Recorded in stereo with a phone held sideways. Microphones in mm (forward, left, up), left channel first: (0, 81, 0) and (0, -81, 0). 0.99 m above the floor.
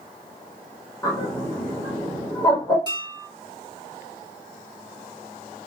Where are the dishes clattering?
25° right (ahead or behind), 1.7 m.